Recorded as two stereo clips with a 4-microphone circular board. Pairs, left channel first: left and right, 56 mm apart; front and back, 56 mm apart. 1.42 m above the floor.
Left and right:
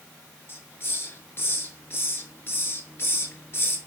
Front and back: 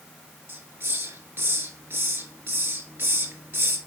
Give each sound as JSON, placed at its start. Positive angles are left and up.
{"t": 0.5, "sound": "a hiss", "azimuth_deg": 135, "distance_m": 2.5}